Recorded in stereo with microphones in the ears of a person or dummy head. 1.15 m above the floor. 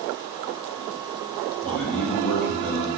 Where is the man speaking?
5° left (ahead or behind), 1.2 m.